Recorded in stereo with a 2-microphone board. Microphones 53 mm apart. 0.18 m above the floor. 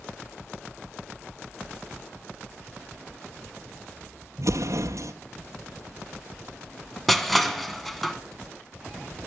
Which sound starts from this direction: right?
An explosion, at 4.4 s.